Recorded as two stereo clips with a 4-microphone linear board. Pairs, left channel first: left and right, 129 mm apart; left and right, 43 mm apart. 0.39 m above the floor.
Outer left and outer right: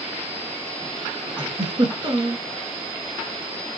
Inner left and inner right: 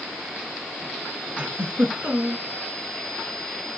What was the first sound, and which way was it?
A giggle, 35° right (ahead or behind).